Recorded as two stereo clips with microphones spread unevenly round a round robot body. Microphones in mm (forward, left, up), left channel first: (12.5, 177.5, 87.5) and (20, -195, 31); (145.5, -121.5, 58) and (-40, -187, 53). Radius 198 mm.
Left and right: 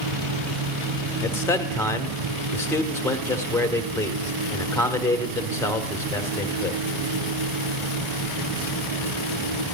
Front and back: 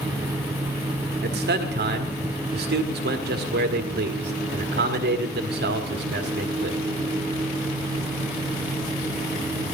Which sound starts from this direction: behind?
A man speaking, at 1.2 s.